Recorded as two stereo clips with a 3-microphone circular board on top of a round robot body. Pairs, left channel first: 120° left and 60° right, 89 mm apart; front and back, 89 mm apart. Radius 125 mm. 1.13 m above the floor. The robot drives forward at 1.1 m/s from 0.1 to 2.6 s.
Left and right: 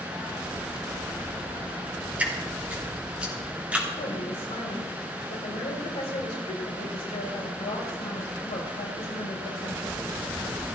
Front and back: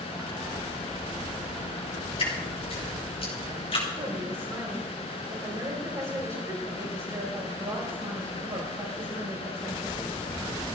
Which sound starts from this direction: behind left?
A woman speaking, at 4.0 s.